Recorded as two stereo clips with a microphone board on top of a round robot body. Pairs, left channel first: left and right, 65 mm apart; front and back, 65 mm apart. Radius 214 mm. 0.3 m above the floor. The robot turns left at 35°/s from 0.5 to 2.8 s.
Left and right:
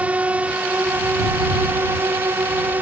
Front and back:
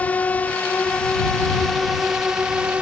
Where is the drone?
45° right; by 2.8 s 120° right.